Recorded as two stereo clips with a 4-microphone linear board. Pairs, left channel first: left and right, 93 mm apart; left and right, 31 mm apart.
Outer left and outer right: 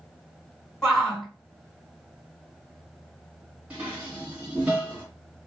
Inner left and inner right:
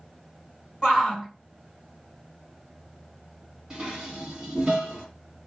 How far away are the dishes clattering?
About 1.7 m.